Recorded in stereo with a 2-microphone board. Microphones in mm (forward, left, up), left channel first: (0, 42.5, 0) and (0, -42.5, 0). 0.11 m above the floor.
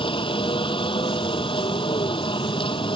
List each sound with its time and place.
0.0 s a helicopter: 70° left (ahead or behind)